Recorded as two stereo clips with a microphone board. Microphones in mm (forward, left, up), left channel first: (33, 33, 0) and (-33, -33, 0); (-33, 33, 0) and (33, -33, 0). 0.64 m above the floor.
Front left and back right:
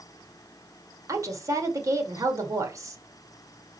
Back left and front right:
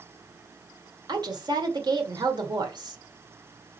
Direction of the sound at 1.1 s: 80° right.